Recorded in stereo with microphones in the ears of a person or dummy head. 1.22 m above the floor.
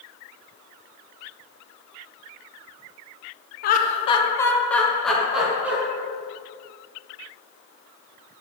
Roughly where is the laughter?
Left.